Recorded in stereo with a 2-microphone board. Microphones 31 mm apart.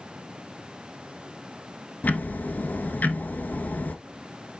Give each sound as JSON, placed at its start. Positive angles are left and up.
{"t": 2.0, "sound": "ticking", "side_deg": 65, "distance_m": 0.8}